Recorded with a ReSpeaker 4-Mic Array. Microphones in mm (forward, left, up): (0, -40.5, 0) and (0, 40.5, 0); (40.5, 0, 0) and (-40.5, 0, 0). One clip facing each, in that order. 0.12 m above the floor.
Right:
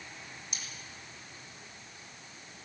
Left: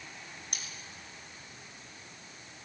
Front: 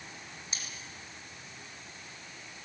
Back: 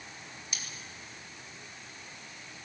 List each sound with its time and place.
0.5 s cutlery clinking: 60° left, 3.5 m